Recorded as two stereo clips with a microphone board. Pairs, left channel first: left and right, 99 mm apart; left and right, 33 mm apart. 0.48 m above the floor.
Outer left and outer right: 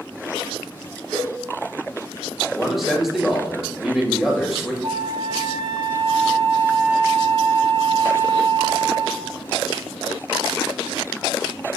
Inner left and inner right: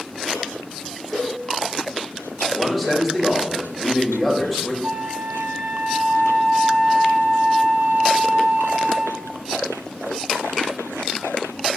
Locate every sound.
1.1 s a cowbell: 5° left (ahead or behind), 1.2 m
2.5 s a man speaking: 5° right (ahead or behind), 1.5 m
4.8 s a flute: 70° right (ahead or behind), 2.5 m